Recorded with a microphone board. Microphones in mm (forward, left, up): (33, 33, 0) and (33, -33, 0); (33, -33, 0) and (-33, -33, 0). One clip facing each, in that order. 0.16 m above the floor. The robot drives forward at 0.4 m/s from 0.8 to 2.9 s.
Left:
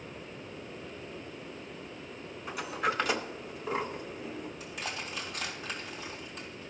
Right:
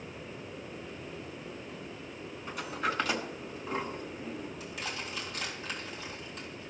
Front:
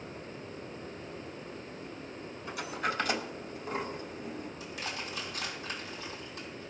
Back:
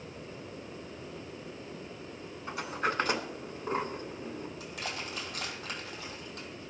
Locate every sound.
2.5 s a sliding door: 170° left, 0.9 m
4.6 s crushing: 175° left, 3 m